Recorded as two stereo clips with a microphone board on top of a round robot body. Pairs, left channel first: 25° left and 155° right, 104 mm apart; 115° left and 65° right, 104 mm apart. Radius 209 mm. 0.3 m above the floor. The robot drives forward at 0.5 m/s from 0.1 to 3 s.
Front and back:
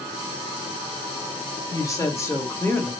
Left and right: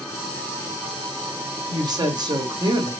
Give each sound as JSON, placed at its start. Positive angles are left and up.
{"t": 1.7, "sound": "a woman speaking", "azimuth_deg": -30, "distance_m": 2.0}